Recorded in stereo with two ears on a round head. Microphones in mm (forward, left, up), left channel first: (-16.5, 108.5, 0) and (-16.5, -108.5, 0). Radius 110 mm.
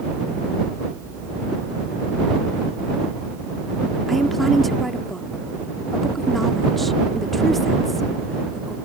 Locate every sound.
4.1 s a woman speaking: centre (ahead or behind)